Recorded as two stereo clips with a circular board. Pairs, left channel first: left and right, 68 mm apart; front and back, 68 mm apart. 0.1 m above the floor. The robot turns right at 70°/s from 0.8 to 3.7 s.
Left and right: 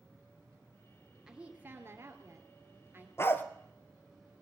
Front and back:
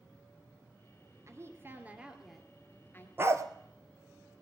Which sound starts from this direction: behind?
A woman speaking, at 1.3 s.